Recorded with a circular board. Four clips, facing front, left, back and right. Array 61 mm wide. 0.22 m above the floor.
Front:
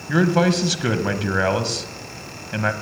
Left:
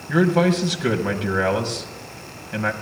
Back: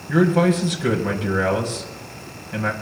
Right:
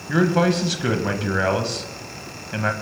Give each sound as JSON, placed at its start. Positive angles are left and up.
{"t": 0.1, "sound": "a man speaking", "azimuth_deg": -10, "distance_m": 1.0}